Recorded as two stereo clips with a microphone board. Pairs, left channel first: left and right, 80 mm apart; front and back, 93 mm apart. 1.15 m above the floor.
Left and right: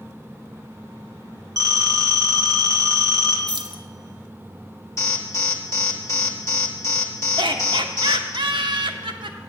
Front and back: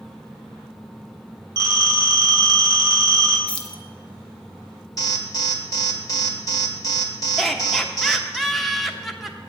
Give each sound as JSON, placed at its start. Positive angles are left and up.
{"t": 1.6, "sound": "a phone ringing", "azimuth_deg": -140, "distance_m": 2.0}
{"t": 3.5, "sound": "keys jangling", "azimuth_deg": -75, "distance_m": 0.7}
{"t": 5.0, "sound": "an alarm", "azimuth_deg": 45, "distance_m": 1.3}
{"t": 7.4, "sound": "laughter", "azimuth_deg": -90, "distance_m": 1.0}